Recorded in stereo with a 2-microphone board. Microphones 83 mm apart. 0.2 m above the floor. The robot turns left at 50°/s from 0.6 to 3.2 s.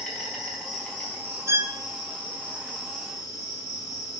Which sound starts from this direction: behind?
An insect, at 0.0 s.